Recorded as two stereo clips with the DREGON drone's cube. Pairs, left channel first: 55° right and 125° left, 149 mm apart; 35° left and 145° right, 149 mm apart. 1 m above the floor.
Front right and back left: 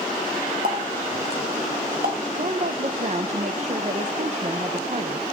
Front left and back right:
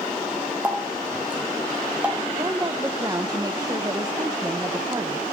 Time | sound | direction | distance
0.6 | a running tap | 135° left | 4 m
2.4 | a woman speaking | 155° left | 0.7 m